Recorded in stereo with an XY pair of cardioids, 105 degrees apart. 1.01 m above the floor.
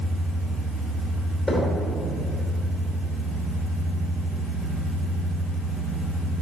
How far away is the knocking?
About 2.5 m.